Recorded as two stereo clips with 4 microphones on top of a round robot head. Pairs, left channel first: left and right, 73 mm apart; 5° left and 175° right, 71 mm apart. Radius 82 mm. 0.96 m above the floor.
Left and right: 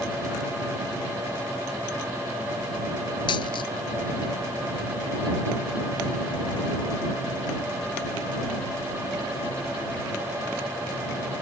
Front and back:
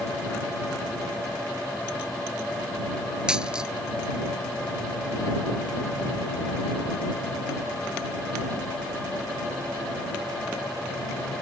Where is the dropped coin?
110° left.